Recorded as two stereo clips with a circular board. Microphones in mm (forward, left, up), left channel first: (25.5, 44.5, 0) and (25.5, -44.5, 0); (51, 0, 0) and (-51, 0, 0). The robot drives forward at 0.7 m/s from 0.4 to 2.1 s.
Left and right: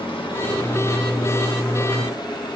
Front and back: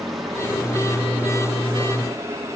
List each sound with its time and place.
0.0 s running water: 90° left, 2 m; by 2.5 s 120° left, 2.5 m